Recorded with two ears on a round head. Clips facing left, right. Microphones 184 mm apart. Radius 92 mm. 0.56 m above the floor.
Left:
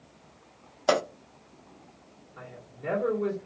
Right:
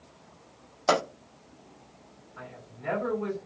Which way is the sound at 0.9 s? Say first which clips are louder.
Left 1 dB; 5° left (ahead or behind).